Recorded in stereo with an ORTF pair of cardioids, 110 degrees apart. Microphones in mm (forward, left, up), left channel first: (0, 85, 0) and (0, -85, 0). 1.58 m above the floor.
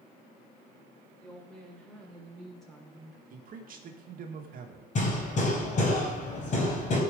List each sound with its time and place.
1.2 s a woman speaking: 5° left, 5 m; by 3.2 s straight ahead, 4 m
3.3 s a man speaking: 55° right, 1.8 m
5.0 s hammering: 45° left, 4 m